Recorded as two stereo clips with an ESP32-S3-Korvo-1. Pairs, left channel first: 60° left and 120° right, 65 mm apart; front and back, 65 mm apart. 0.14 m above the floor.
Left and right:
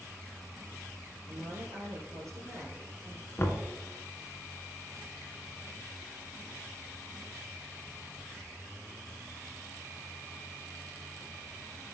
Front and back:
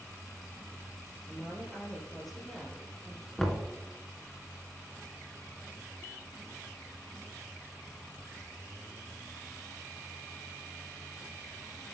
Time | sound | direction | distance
1.3 | a woman speaking | 85° right | 3 m
3.4 | knocking | 80° left | 1.2 m